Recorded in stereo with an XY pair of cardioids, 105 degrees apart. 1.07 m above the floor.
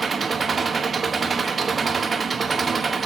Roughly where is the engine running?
Ahead right.